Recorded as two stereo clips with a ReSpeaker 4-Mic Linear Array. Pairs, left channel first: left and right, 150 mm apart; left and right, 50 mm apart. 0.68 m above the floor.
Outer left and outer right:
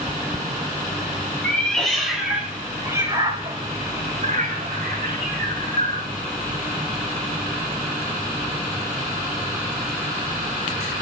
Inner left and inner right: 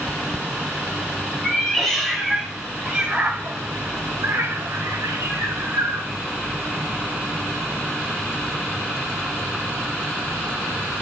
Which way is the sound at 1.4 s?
5° left (ahead or behind).